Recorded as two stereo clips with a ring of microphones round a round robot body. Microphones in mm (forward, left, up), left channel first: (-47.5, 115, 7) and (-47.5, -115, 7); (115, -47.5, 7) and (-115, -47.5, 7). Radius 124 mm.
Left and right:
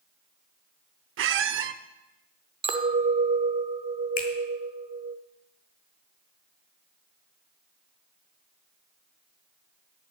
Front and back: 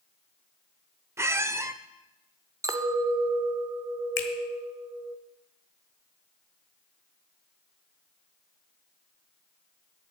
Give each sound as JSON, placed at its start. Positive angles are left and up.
{"t": 1.2, "sound": "a squeak", "azimuth_deg": -105, "distance_m": 0.5}
{"t": 2.6, "sound": "a clink", "azimuth_deg": -120, "distance_m": 0.7}
{"t": 4.2, "sound": "a finger snap", "azimuth_deg": 35, "distance_m": 1.2}